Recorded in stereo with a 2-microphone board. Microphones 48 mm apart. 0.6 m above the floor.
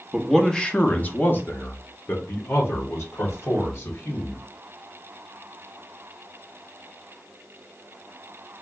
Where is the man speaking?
Centre (ahead or behind), 0.6 m; by 4.4 s 75° left (ahead or behind), 2.5 m.